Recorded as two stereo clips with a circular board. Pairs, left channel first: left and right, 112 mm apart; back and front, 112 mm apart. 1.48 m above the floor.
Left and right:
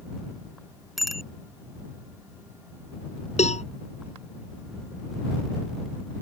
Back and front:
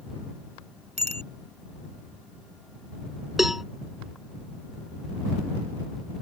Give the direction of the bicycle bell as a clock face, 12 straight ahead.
12 o'clock.